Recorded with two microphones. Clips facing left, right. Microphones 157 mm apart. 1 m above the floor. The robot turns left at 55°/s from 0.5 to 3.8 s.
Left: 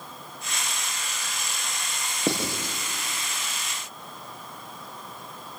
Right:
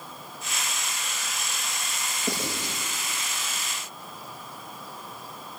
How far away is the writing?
About 7.5 m.